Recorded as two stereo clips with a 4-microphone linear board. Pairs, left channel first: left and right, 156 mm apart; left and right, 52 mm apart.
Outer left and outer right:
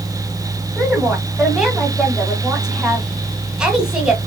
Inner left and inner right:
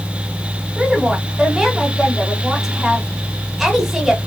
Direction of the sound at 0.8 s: 5° right (ahead or behind).